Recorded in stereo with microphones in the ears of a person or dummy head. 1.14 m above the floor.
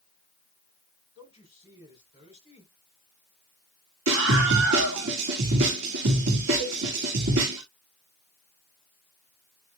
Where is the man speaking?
25° right (ahead or behind), 4.5 m.